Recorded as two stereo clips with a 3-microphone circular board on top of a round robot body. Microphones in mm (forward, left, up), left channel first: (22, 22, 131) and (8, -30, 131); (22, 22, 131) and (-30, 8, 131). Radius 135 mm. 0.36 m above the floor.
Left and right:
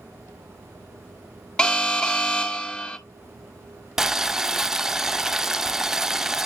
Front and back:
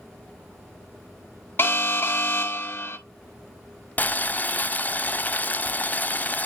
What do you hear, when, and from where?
1.6 s an alarm: 5° left, 1.8 m
4.0 s boiling: 25° right, 0.6 m